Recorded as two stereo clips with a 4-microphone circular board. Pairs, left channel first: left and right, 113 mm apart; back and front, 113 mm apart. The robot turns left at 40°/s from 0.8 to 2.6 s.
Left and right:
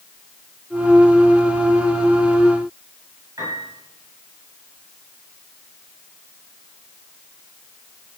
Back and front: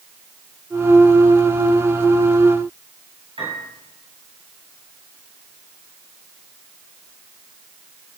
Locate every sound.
3.4 s a piano: 35° right, 9 m